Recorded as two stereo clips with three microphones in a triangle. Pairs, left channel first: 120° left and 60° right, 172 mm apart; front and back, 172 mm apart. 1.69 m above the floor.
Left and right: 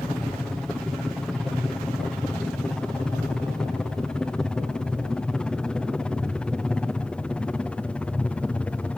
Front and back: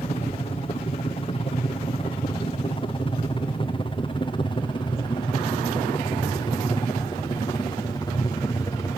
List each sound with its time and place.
0.0 s a helicopter: 35° left; by 9.0 s 45° left